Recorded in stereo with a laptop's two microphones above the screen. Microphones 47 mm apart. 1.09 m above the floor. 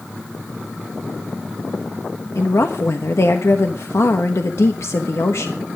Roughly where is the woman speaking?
Left.